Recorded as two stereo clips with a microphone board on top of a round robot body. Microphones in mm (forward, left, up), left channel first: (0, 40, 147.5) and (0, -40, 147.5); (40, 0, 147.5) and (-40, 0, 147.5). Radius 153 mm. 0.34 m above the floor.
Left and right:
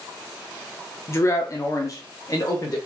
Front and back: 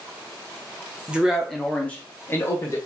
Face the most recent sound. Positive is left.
turn(degrees=50)